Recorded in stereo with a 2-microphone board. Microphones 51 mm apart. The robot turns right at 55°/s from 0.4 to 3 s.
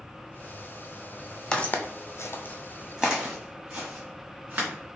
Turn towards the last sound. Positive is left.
turn(degrees=-40)  # may be behind; listen again after turning